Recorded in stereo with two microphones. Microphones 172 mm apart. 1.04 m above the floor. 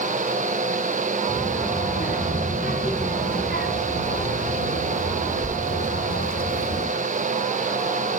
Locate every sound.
1.3 s a child speaking: 45° left (ahead or behind), 4 m; by 6.9 s 60° left (ahead or behind), 3 m